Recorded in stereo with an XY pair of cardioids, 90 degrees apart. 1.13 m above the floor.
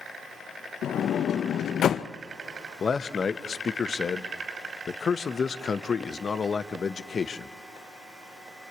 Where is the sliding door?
70° left, 0.5 m.